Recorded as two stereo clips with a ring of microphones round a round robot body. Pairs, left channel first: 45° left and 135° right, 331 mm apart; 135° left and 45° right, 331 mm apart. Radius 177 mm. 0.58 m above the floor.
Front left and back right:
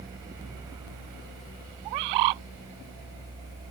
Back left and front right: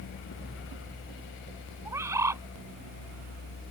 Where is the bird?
125° right.